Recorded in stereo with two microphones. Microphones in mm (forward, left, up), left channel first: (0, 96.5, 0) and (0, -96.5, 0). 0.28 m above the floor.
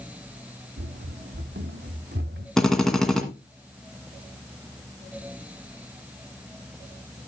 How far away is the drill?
About 1.7 m.